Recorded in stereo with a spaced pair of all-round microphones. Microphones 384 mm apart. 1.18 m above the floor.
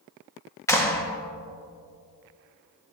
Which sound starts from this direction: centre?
A clap, at 0.7 s.